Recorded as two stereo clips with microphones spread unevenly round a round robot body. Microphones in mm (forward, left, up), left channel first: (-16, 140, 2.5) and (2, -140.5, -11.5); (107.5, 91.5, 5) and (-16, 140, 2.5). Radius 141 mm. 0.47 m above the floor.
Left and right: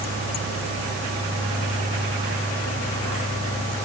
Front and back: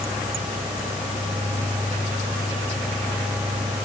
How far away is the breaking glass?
No breaking glass in this recording.